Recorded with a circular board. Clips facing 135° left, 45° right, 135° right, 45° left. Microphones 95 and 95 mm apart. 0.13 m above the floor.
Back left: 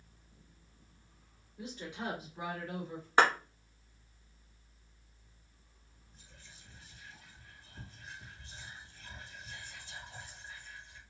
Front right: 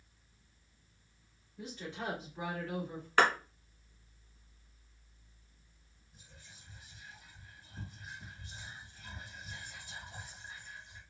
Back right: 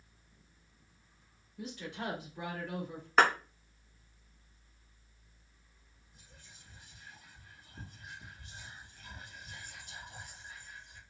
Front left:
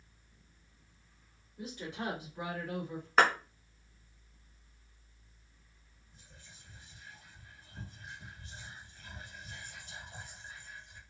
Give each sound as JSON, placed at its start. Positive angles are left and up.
{"t": 1.6, "sound": "a woman speaking", "azimuth_deg": 75, "distance_m": 1.9}
{"t": 3.2, "sound": "a clap", "azimuth_deg": 135, "distance_m": 0.8}
{"t": 6.1, "sound": "whispering", "azimuth_deg": 25, "distance_m": 1.5}